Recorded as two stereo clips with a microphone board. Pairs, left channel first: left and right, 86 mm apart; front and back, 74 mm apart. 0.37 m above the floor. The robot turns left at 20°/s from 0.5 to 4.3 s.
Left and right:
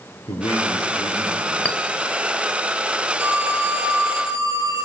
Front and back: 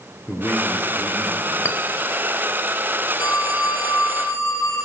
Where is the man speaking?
65° left, 5.5 m; by 1.6 s 45° left, 5.5 m.